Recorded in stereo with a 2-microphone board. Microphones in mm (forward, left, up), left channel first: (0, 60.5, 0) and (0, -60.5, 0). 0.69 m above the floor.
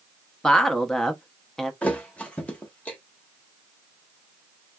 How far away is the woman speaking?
About 0.7 m.